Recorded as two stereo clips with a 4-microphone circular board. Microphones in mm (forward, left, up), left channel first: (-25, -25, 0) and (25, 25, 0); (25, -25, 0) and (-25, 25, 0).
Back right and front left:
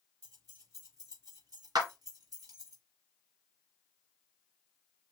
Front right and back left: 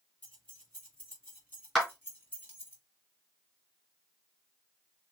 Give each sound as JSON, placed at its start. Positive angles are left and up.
{"t": 0.2, "sound": "keys jangling", "azimuth_deg": 20, "distance_m": 4.0}
{"t": 1.8, "sound": "a clap", "azimuth_deg": 40, "distance_m": 2.5}